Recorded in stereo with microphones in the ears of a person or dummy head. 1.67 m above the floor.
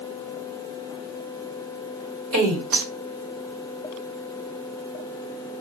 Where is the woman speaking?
75° right (ahead or behind), 1.4 m.